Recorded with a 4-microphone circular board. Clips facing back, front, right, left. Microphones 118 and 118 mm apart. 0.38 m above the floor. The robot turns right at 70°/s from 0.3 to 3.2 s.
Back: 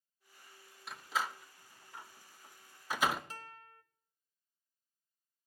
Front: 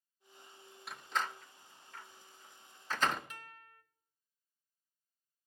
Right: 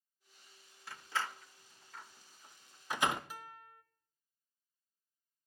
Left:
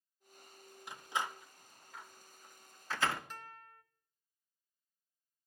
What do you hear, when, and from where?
0.9 s a door slam: 90° left, 0.5 m; by 3.2 s 110° right, 0.5 m
3.3 s a guitar: 165° right, 0.7 m